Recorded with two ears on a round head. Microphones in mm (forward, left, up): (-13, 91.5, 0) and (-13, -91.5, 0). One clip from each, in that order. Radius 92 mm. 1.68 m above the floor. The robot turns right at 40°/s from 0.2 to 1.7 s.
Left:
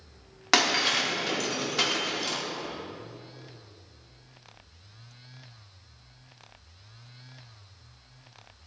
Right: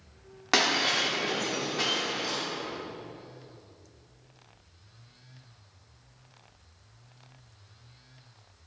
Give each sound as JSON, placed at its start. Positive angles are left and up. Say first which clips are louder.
{"t": 0.5, "sound": "breaking glass", "louder": "left 1 dB", "side_deg": 20, "distance_m": 2.0}